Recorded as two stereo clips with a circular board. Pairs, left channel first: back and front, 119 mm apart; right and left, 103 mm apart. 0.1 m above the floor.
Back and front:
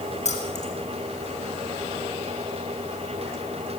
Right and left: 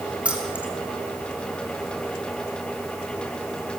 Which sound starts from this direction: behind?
Keys jangling, at 0.2 s.